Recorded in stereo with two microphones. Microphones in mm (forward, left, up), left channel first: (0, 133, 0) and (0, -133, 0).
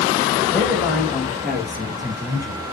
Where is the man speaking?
10° left (ahead or behind), 4 m; by 2.6 s 15° right (ahead or behind), 2 m.